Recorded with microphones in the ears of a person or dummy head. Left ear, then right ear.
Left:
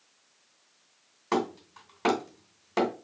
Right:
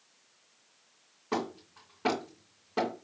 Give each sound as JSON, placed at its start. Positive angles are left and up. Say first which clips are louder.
{"t": 1.3, "sound": "hammering", "louder": "left 5 dB", "side_deg": 50, "distance_m": 2.5}